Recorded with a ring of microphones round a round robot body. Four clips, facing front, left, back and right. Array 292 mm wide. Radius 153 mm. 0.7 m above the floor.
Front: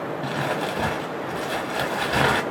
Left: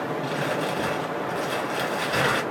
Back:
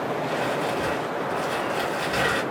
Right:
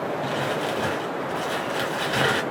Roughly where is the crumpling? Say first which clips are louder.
Right 1 dB, front 2 dB; ahead.